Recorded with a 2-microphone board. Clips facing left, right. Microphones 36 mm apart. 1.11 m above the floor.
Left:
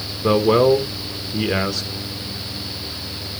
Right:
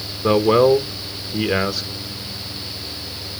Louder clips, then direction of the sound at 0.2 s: Right 1 dB; 5° right (ahead or behind).